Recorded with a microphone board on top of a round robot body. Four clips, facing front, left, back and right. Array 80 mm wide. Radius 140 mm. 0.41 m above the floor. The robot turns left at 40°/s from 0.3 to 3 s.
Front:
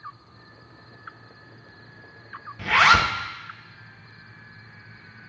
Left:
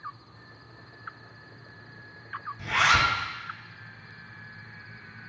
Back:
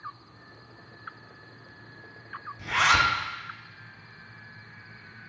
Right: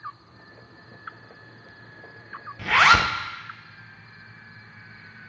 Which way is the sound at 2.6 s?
45° right.